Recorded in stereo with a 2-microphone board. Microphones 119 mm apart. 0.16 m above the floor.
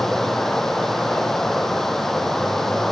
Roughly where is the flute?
No flute in this recording.